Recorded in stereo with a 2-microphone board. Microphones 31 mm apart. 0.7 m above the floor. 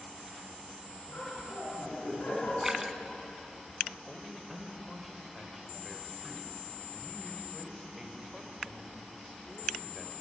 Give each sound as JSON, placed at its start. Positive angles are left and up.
{"t": 1.1, "sound": "laughter", "side_deg": 55, "distance_m": 9.0}
{"t": 2.6, "sound": "a splash", "side_deg": -15, "distance_m": 1.2}
{"t": 4.1, "sound": "a man speaking", "side_deg": -10, "distance_m": 3.0}